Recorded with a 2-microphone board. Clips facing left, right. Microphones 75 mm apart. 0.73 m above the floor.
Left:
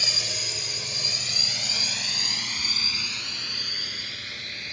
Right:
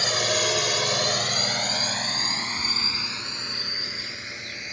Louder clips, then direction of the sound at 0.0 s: Right 11 dB; 55° right (ahead or behind).